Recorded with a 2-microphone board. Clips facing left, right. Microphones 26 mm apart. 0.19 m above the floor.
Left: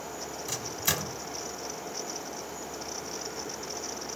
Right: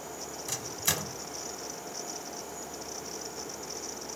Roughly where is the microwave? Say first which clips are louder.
Left 1 dB; centre.